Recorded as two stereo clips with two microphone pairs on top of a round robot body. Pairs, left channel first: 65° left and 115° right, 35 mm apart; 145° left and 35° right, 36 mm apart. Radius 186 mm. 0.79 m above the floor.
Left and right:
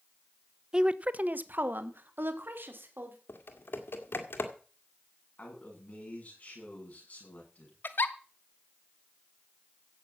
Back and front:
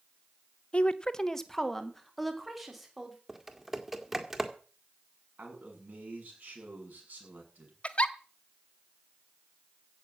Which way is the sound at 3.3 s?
50° left.